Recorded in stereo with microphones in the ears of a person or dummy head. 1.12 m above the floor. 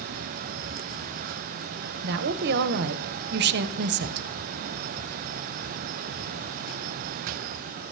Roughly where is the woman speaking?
Right.